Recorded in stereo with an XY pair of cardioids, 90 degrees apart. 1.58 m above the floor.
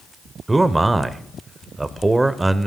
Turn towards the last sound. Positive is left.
turn(degrees=-20)